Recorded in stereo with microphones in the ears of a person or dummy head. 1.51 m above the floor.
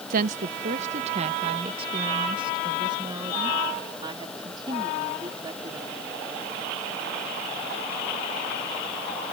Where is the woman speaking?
50° right (ahead or behind); by 6.1 s 20° right (ahead or behind).